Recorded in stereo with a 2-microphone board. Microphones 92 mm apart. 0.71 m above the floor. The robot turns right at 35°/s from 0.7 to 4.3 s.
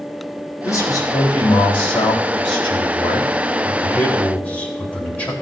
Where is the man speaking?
40° left, 3.5 m; by 5.3 s 165° left, 3.5 m.